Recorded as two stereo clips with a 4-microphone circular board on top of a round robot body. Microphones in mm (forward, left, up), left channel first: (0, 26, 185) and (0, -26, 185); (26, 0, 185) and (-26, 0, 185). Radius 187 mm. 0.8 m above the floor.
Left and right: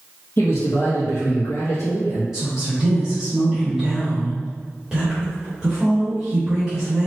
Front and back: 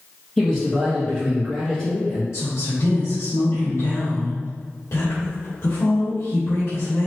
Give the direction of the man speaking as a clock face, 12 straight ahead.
9 o'clock.